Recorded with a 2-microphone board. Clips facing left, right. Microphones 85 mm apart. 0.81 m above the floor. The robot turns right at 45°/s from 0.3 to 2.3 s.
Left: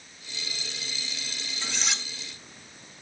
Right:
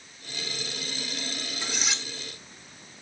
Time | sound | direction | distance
1.6 | cutlery clinking | 15° right (ahead or behind) | 1.1 m